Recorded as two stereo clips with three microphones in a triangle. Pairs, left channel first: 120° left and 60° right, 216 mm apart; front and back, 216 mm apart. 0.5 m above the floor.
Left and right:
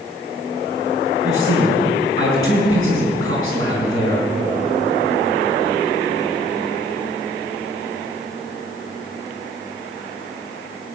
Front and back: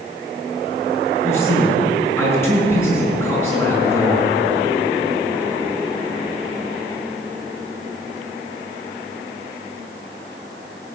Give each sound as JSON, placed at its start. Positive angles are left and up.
{"t": 1.2, "sound": "a man speaking", "azimuth_deg": -80, "distance_m": 4.5}